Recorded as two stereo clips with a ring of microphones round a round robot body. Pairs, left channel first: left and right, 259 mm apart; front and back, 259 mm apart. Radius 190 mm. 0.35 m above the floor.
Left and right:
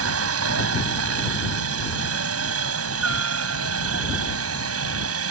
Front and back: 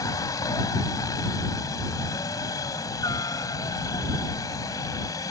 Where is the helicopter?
80° right.